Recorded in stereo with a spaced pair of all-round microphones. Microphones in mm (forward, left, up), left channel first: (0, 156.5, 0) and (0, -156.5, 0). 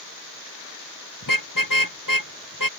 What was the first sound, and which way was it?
A car horn, 80° left.